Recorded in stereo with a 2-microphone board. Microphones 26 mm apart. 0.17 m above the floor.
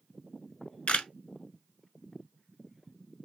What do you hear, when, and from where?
0.9 s a camera shutter: 55° left (ahead or behind), 0.6 m